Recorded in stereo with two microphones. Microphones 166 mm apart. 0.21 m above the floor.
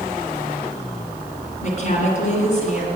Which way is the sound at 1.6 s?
50° left (ahead or behind).